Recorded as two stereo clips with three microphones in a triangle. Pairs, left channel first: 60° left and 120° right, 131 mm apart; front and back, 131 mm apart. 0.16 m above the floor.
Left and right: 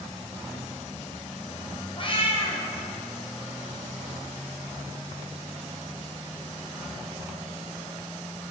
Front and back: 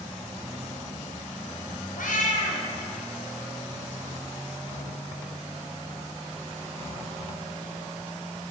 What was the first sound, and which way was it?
A cat meowing, 10° left.